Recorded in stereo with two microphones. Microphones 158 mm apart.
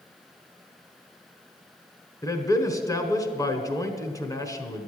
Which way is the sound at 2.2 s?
20° left (ahead or behind).